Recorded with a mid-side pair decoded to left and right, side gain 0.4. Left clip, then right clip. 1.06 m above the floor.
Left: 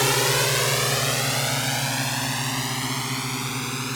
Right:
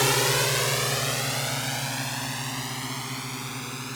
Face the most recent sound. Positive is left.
turn(degrees=50)